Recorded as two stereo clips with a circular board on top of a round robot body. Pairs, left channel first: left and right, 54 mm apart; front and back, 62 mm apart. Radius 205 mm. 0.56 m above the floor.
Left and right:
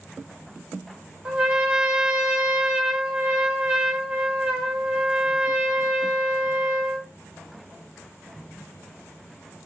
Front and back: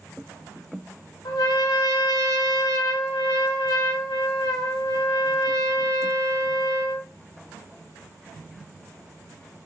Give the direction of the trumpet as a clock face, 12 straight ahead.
1 o'clock.